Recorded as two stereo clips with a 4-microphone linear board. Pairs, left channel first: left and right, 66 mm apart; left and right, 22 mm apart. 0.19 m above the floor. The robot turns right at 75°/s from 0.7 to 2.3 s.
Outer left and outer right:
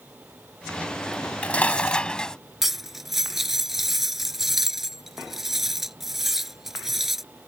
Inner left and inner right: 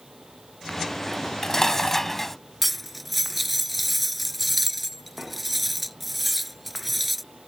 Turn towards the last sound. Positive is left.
turn(degrees=-5)  # may be behind; listen again after turning